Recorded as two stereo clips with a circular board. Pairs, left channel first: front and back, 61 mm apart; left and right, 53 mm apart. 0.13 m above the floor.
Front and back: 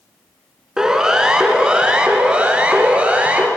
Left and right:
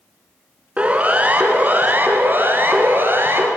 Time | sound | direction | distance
0.8 | a siren | 110° right | 2 m